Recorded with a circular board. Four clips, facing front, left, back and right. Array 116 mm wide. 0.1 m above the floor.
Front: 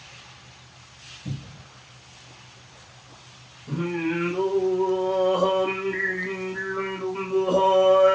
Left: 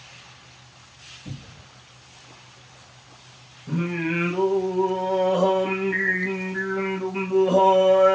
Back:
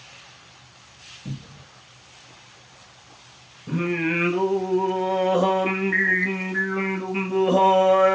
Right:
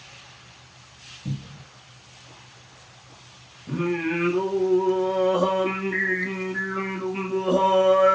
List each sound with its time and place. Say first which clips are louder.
1.2 s a cupboard door: right 6 dB, even; 120° right, 2.5 m
3.7 s singing: right 1 dB, back 2 dB; straight behind, 0.9 m